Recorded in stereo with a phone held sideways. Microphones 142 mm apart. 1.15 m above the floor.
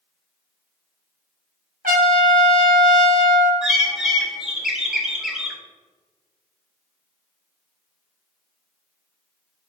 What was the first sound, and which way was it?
A trumpet, 80° right.